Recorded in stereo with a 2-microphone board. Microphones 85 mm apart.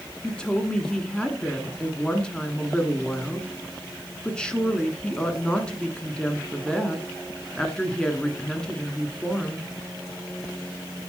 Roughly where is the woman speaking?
Centre.